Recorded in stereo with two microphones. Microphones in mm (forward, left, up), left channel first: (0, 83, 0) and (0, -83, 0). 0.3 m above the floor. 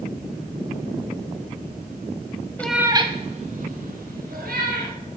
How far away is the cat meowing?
About 0.8 m.